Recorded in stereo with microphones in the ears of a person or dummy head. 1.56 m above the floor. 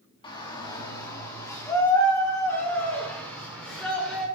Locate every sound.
0.2 s a shout: 30° left (ahead or behind), 3.5 m; by 4.2 s 10° left (ahead or behind), 7 m